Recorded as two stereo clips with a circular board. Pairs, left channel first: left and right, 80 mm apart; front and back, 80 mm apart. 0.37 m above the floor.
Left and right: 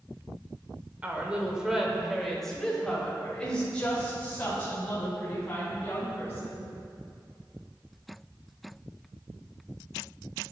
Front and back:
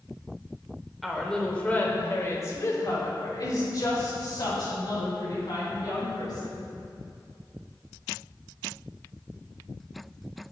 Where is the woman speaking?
90° right, 1.0 m; by 6.7 s 20° left, 3.5 m.